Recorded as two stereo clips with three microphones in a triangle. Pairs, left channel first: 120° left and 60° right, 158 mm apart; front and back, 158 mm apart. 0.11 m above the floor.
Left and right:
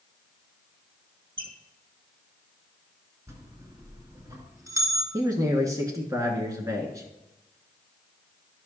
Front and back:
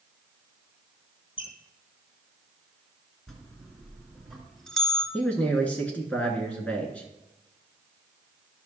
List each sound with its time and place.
1.4 s a squeak: 55° right, 1.1 m
3.3 s a bell: 85° right, 1.6 m
5.1 s a man speaking: 60° right, 1.2 m